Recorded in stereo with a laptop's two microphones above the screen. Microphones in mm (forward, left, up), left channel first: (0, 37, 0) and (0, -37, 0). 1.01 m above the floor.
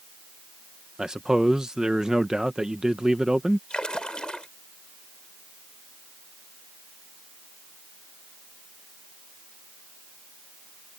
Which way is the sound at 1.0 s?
10° right (ahead or behind).